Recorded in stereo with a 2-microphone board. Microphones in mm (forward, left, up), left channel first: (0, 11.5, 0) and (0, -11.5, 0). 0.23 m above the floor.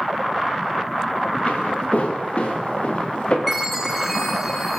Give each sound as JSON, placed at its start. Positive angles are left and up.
{"t": 1.5, "sound": "footsteps", "side_deg": 70, "distance_m": 6.0}
{"t": 3.5, "sound": "a chime", "side_deg": 0, "distance_m": 6.0}